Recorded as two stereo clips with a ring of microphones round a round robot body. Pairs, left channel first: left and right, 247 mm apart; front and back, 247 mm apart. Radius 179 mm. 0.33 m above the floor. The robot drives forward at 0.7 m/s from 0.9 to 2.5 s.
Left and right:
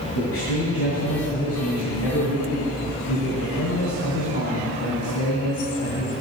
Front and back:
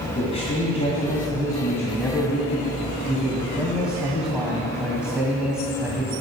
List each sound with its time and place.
0.1 s a man speaking: 65° left, 2.5 m; by 6.1 s 95° left, 2.5 m